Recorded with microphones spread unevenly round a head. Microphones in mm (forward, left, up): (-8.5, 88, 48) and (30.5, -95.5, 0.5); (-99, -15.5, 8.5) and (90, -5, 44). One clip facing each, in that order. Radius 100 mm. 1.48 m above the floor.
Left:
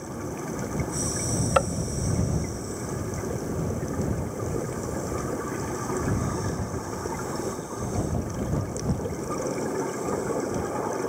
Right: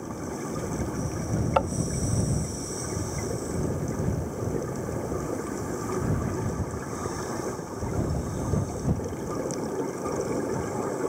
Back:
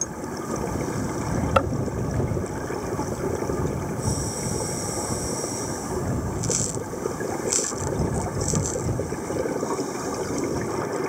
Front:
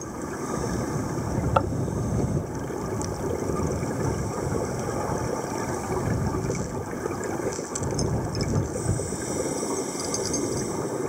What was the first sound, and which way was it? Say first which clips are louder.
Tapping: left 2 dB, back 2 dB; 120° left.